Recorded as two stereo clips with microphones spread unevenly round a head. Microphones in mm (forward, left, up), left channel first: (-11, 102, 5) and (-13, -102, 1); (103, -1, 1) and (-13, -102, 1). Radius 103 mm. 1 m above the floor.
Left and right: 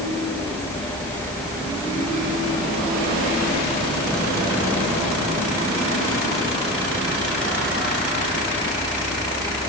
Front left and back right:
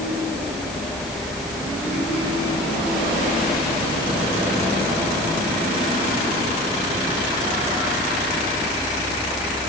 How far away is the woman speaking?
No woman speaking in this recording.